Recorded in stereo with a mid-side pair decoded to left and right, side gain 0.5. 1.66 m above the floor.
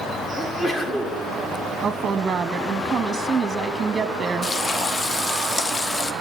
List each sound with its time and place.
0.4 s a sneeze: 30° left, 3.5 m
1.8 s a woman speaking: 30° right, 0.9 m
4.4 s frying: 40° left, 0.9 m